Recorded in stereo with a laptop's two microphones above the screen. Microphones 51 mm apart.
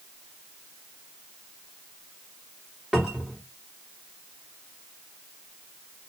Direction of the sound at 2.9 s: 15° right (ahead or behind).